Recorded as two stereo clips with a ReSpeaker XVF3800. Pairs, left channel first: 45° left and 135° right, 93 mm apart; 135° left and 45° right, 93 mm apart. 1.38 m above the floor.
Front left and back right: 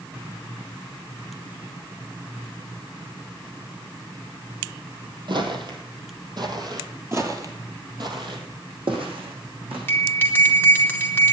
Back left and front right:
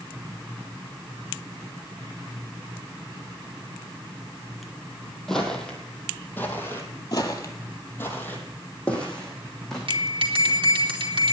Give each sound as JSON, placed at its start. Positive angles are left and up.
{"t": 5.3, "sound": "footsteps", "azimuth_deg": -140, "distance_m": 2.5}
{"t": 7.1, "sound": "footsteps", "azimuth_deg": 170, "distance_m": 2.0}
{"t": 9.9, "sound": "a bell", "azimuth_deg": -25, "distance_m": 2.5}